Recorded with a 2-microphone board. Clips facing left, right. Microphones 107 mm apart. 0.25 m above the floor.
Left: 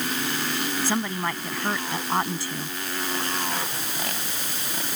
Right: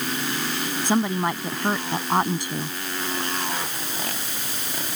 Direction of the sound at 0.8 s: 20° right (ahead or behind).